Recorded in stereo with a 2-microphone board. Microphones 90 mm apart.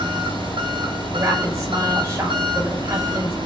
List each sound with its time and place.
0.0 s an engine running: 70° right (ahead or behind), 8 m
1.1 s a woman speaking: 30° right (ahead or behind), 8 m